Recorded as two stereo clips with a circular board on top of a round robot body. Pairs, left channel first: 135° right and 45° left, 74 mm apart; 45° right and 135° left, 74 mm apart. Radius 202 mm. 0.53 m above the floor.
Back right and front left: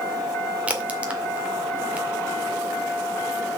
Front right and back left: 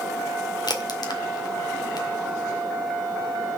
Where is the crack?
25° right, 2 m.